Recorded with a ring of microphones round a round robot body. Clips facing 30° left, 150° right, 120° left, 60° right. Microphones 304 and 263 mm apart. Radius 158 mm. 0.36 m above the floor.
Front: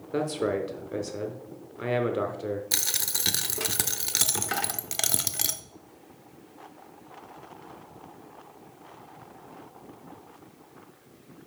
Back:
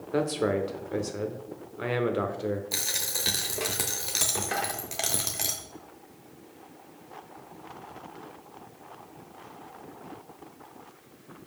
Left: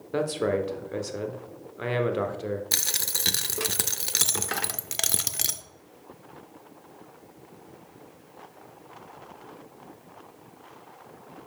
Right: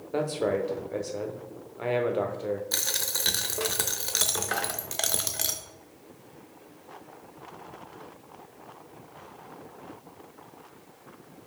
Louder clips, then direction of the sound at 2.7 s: Back 2 dB, right 1 dB; 80° left.